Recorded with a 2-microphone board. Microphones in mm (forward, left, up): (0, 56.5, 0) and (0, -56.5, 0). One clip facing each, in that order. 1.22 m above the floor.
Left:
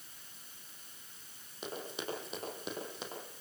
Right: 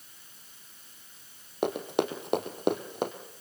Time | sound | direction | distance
1.6 | running footsteps | 65° right (ahead or behind) | 3.5 m